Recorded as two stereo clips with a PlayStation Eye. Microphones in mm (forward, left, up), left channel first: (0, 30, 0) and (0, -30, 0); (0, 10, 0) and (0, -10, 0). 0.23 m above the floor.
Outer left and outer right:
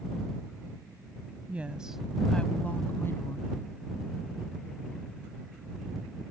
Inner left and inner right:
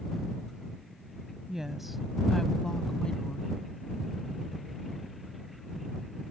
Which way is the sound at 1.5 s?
25° right (ahead or behind).